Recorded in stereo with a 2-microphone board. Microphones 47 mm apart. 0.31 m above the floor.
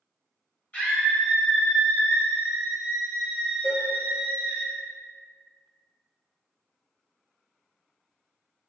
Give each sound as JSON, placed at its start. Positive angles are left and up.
{"t": 0.7, "sound": "a scream", "side_deg": 25, "distance_m": 1.3}
{"t": 3.6, "sound": "a cowbell", "side_deg": 65, "distance_m": 1.7}